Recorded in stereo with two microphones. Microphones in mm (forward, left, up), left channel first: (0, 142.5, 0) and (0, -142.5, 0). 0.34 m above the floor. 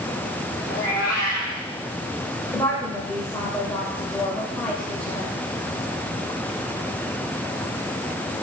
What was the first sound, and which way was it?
A cat meowing, 30° left (ahead or behind).